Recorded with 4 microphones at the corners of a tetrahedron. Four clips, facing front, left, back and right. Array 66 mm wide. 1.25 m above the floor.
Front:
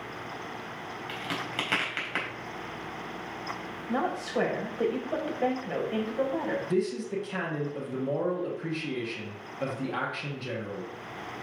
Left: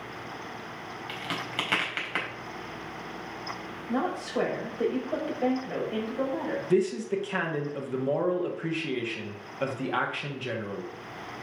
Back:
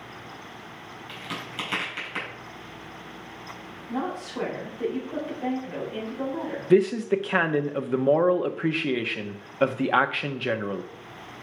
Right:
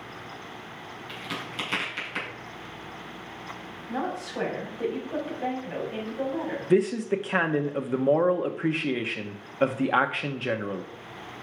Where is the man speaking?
150° right, 0.9 m.